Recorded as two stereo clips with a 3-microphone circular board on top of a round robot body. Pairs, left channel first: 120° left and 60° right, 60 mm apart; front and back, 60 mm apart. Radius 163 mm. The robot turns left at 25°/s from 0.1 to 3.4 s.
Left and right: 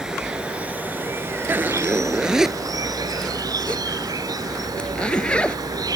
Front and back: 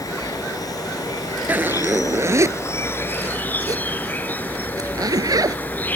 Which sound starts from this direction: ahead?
An insect, at 0.0 s.